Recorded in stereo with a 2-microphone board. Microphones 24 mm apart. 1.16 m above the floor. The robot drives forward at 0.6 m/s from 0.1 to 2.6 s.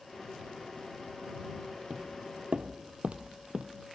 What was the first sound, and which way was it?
Footsteps, 45° right (ahead or behind).